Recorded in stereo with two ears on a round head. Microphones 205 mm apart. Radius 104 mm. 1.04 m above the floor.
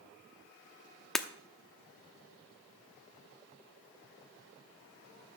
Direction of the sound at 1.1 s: Centre (ahead or behind).